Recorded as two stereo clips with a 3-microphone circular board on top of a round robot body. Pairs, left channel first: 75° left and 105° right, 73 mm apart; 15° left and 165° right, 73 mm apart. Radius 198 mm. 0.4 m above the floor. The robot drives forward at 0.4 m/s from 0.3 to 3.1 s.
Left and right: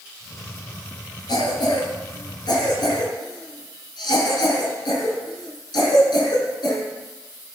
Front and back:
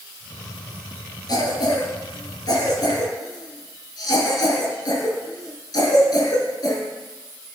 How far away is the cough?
About 9.5 m.